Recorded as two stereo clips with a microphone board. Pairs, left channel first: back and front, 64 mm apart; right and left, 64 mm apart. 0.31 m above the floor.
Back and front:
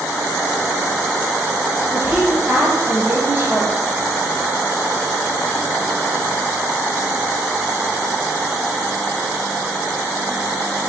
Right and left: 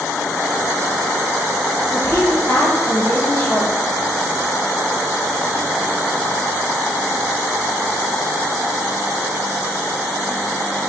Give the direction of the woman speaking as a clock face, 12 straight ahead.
3 o'clock.